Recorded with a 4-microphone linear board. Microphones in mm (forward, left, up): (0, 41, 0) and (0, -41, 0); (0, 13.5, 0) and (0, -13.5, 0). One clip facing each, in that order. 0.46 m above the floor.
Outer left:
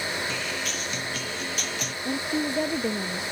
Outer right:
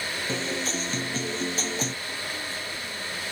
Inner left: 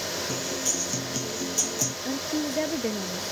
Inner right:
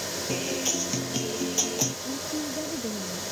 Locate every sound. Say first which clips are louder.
0.3 s a guitar: outer right 2 dB, inner right 1 dB; 30° right (ahead or behind)
2.0 s a woman speaking: outer left 8 dB, inner left 3 dB; 65° left (ahead or behind)